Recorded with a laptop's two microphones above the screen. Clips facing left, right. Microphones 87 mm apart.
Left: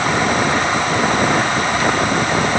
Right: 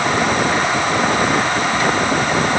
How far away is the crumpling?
I don't hear crumpling.